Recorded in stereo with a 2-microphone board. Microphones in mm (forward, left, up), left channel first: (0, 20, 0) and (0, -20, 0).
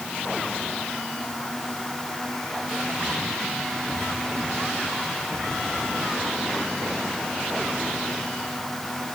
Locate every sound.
Only background noise.